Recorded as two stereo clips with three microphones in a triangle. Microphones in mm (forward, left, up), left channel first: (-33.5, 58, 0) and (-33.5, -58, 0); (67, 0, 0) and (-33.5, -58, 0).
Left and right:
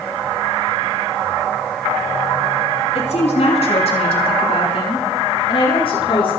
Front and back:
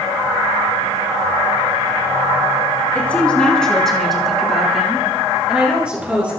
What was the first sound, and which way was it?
A woman speaking, 105° left.